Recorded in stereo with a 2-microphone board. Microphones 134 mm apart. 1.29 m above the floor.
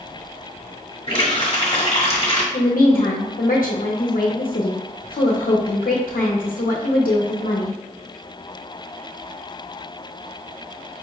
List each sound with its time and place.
1.1 s a running tap: 40° left (ahead or behind), 1.1 m
2.5 s a woman speaking: 75° left (ahead or behind), 0.6 m